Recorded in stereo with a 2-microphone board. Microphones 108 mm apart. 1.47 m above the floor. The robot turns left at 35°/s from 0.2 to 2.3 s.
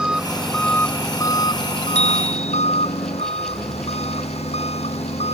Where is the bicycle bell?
70° left (ahead or behind); by 2.7 s 85° left.